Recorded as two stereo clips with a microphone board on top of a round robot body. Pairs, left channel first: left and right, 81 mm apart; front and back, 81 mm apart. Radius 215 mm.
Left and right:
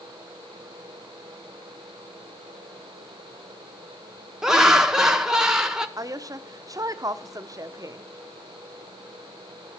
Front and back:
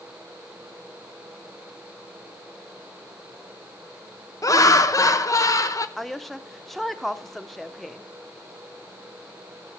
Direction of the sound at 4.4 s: 10° right.